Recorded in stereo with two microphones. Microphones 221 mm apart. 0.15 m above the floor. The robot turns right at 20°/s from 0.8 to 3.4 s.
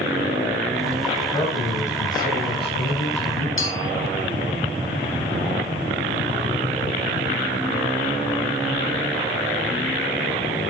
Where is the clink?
65° left (ahead or behind), 2 m.